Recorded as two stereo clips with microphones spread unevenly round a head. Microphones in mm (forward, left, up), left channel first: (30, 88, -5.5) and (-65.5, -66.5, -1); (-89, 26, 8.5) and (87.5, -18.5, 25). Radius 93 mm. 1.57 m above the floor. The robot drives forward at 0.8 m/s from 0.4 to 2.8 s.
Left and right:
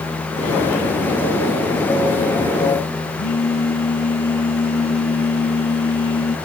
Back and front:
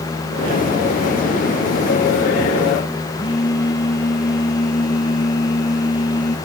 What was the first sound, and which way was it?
A phone buzzing, 95° left.